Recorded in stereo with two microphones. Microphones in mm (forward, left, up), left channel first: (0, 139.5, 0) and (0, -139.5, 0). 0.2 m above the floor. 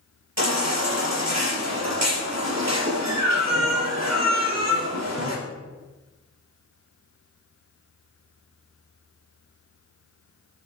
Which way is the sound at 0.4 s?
70° right (ahead or behind).